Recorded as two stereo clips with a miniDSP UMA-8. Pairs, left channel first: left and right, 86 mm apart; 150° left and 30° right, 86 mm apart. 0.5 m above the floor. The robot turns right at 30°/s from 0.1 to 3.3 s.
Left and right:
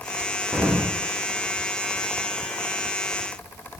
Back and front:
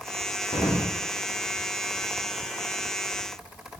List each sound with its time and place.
0.5 s an explosion: straight behind, 7.5 m; by 1.0 s 165° right, 7.5 m